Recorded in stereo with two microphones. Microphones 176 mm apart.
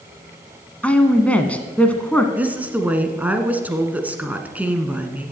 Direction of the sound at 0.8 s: 5° left (ahead or behind).